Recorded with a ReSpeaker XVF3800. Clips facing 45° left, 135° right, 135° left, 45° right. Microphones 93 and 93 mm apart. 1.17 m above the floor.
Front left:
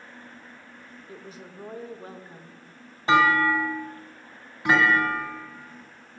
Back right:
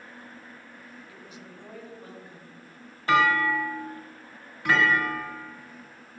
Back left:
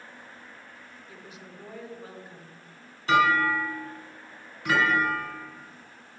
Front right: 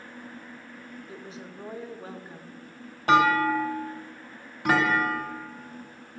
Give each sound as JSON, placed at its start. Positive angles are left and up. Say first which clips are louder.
{"t": 1.1, "sound": "a woman speaking", "louder": "front left 3 dB, front right 3 dB", "azimuth_deg": 5, "distance_m": 0.7}
{"t": 3.1, "sound": "a clunk", "louder": "front left 2 dB, front right 2 dB", "azimuth_deg": -25, "distance_m": 1.5}